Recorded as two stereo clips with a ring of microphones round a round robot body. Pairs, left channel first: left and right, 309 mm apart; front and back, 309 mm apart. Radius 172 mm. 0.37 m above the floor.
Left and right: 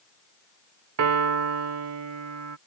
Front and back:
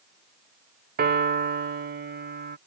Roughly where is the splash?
I don't hear a splash.